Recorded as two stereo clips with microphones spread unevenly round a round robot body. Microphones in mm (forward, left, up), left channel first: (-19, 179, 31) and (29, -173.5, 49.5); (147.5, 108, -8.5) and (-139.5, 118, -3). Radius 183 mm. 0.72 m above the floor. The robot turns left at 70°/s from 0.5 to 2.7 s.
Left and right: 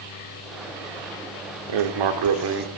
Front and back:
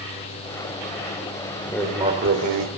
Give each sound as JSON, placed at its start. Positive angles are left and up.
{"t": 1.7, "sound": "writing", "azimuth_deg": -80, "distance_m": 1.3}